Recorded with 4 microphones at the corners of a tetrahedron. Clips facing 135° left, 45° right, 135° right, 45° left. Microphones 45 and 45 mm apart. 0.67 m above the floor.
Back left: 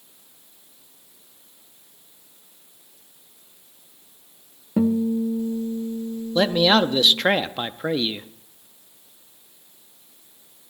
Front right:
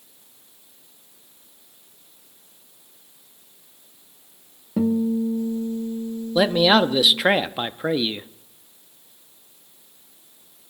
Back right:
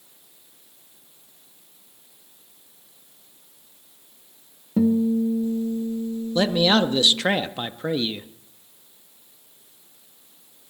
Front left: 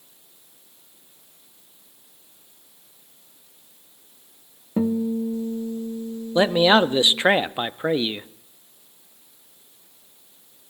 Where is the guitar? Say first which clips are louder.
Even, back right 3 dB; 80° left, 1.0 m.